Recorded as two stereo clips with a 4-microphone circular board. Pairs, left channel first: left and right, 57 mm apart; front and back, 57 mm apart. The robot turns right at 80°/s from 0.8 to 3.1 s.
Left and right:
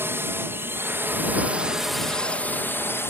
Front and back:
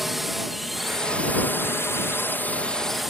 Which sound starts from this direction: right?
A drone, at 0.0 s.